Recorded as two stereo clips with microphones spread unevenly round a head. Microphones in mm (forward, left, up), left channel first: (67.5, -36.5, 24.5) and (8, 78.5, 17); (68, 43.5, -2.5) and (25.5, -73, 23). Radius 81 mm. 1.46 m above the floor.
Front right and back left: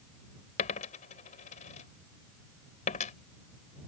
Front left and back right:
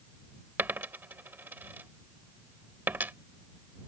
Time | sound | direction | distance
0.6 | a dropped coin | 40° right | ?